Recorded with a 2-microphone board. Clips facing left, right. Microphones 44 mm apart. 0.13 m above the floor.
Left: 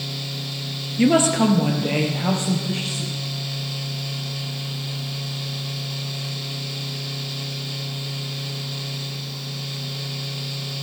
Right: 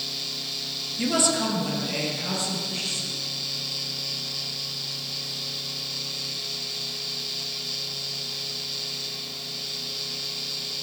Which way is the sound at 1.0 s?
35° left (ahead or behind).